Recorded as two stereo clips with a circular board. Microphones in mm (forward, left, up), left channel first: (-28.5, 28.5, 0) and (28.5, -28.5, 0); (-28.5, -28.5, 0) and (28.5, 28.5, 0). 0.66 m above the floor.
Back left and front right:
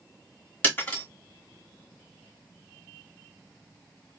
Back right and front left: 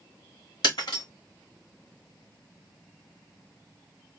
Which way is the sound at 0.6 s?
155° right.